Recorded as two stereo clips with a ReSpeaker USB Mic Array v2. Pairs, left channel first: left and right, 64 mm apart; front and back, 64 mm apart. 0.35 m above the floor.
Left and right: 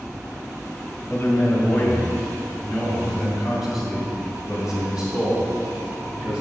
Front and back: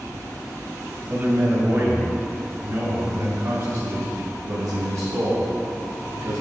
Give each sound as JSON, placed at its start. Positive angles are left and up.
{"t": 1.1, "sound": "a man speaking", "azimuth_deg": 145, "distance_m": 2.0}